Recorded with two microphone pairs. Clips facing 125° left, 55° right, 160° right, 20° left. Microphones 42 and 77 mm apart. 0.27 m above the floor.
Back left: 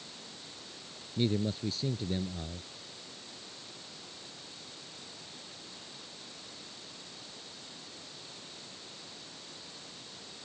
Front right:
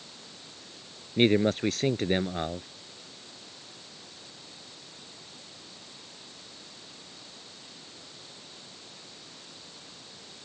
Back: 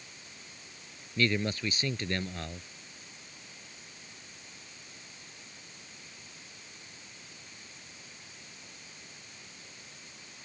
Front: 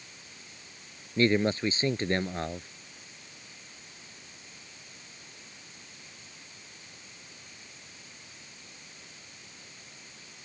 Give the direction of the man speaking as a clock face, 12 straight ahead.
1 o'clock.